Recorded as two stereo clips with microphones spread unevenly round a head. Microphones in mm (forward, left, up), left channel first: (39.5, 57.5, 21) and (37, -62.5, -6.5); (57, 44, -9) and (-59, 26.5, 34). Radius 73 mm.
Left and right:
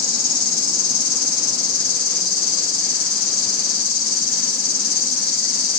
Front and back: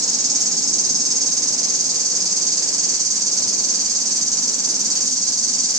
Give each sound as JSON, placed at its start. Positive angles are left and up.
{"t": 0.0, "sound": "an insect", "azimuth_deg": 125, "distance_m": 1.1}